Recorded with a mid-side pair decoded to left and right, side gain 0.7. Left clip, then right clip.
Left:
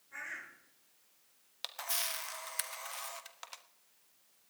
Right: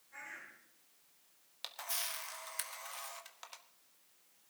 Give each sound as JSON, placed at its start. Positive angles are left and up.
{"t": 0.1, "sound": "a bird", "azimuth_deg": 35, "distance_m": 6.0}
{"t": 1.6, "sound": "a camera shutter", "azimuth_deg": 20, "distance_m": 1.2}